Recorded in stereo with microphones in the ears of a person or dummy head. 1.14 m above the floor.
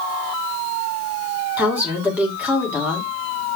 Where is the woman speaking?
10° right (ahead or behind), 3 m.